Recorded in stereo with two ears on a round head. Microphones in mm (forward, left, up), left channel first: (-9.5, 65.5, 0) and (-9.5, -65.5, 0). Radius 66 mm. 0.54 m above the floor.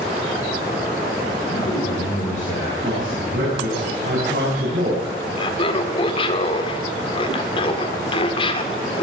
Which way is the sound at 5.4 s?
40° left (ahead or behind).